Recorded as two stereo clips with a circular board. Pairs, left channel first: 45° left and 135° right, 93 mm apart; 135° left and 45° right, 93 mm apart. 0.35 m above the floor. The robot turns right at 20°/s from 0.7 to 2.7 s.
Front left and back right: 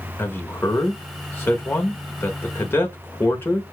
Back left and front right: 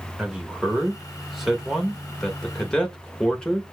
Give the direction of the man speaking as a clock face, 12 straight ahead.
11 o'clock.